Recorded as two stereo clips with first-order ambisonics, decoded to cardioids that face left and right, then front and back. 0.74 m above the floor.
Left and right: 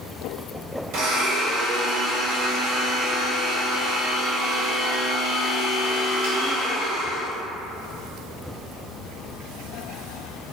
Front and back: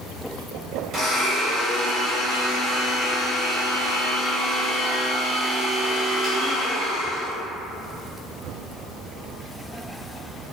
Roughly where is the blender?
Behind right.